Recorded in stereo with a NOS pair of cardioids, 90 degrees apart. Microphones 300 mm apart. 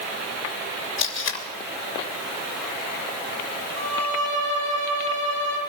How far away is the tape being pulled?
About 3 m.